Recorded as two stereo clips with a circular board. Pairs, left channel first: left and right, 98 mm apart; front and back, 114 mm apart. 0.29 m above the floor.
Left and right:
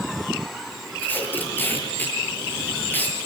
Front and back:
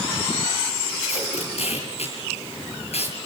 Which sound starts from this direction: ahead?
Tape being pulled, at 1.0 s.